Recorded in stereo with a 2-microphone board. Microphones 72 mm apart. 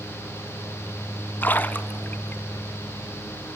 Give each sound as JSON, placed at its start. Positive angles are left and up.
{"t": 1.4, "sound": "a splash", "side_deg": 30, "distance_m": 1.0}